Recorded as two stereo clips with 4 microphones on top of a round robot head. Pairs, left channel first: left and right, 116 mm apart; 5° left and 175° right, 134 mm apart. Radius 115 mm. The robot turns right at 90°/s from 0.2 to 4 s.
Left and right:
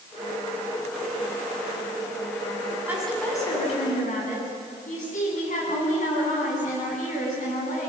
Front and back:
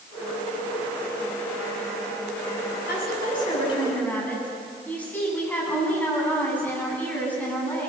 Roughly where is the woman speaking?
Ahead.